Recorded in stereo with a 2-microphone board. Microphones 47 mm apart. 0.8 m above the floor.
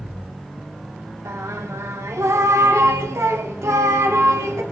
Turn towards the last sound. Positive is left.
turn(degrees=-80)